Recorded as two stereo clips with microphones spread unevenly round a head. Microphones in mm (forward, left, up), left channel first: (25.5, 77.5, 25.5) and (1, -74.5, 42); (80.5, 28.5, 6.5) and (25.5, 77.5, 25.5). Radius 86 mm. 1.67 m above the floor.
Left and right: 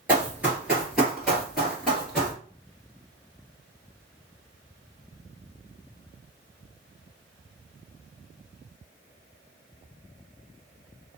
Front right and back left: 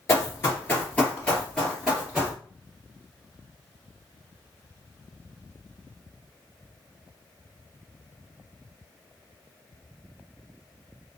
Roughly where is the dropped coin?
No dropped coin in this recording.